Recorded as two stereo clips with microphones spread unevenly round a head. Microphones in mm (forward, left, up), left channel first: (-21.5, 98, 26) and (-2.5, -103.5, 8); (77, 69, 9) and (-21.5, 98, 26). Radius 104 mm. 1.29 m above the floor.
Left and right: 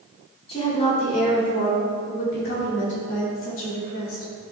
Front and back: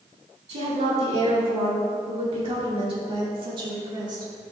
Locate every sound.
0.5 s a woman speaking: 155° left, 3.5 m; by 4.3 s 115° left, 3 m